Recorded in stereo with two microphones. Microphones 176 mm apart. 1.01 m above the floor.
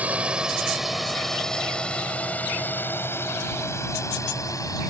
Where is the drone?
10° right (ahead or behind); by 4.9 s 20° left (ahead or behind).